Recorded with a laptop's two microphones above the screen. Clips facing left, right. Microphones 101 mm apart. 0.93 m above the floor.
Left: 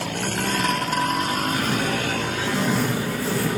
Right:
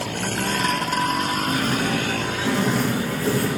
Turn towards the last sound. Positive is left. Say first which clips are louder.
# right 1 dB
turn(degrees=-50)  # may be behind; listen again after turning